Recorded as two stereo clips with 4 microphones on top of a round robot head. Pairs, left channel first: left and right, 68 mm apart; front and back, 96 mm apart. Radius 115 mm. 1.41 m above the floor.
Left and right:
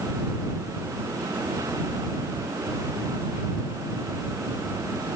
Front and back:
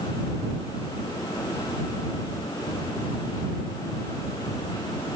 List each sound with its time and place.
Only background noise.